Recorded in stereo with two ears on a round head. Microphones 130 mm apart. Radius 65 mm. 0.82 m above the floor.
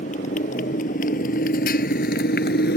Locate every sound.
0.0 s a motorcycle: 55° left (ahead or behind); by 2.8 s 75° left (ahead or behind)